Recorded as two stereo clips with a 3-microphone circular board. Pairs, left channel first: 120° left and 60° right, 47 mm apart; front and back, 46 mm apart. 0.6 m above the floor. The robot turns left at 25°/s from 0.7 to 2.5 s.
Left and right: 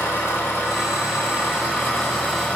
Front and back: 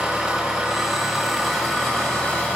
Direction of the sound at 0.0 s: 105° left.